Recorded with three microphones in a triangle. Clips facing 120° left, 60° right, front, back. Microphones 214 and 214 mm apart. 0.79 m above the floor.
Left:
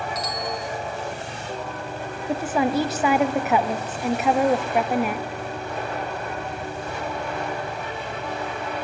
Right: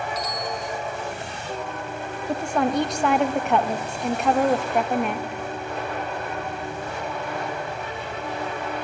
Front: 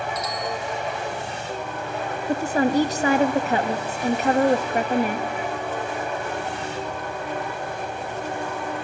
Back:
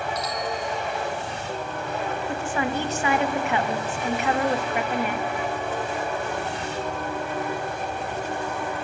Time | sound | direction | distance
0.1 | a bicycle bell | 120° left | 2.5 m
2.3 | a woman speaking | 35° left | 0.6 m